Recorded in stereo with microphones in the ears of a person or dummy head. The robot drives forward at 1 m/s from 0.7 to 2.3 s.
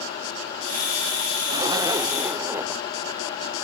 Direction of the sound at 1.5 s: 25° right (ahead or behind).